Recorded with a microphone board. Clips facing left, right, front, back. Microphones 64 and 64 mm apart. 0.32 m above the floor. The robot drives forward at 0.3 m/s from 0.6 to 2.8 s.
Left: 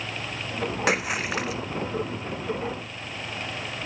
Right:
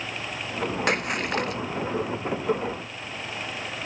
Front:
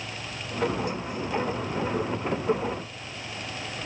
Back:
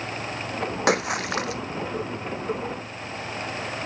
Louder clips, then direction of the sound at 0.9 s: Left 1 dB, back 7 dB; 175° left.